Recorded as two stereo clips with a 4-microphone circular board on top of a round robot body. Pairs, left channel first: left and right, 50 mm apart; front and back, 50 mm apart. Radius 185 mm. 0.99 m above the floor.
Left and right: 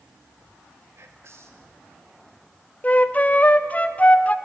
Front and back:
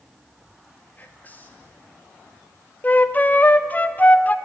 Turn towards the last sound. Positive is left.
turn(degrees=45)